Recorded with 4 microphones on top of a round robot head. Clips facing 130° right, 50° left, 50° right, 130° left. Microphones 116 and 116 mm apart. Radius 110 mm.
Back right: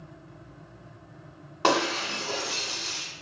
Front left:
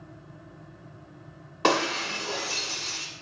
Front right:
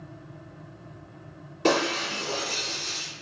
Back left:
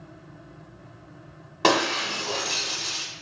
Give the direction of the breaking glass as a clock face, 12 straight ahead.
7 o'clock.